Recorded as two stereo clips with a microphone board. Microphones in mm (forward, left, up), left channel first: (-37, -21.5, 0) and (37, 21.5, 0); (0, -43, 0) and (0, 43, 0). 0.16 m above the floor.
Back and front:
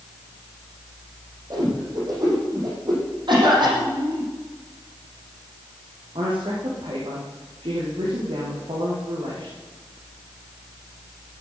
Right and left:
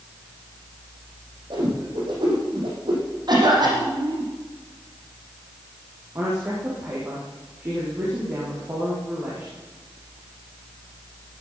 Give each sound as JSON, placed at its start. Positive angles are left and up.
{"t": 1.5, "sound": "a whoosh", "azimuth_deg": 70, "distance_m": 6.0}
{"t": 3.3, "sound": "a cough", "azimuth_deg": 55, "distance_m": 8.0}
{"t": 6.2, "sound": "a woman speaking", "azimuth_deg": 35, "distance_m": 5.5}